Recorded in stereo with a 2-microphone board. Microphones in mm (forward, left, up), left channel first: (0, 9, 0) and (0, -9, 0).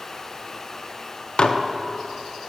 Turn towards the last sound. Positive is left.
turn(degrees=50)  # may be behind; listen again after turning